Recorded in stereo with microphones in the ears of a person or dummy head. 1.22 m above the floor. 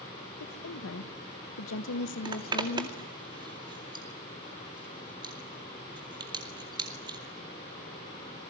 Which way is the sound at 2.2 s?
25° right (ahead or behind).